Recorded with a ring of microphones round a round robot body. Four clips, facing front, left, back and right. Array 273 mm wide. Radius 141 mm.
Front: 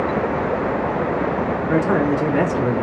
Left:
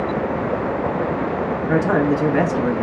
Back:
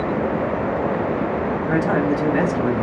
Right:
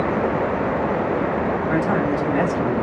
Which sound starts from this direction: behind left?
A man speaking, at 1.7 s.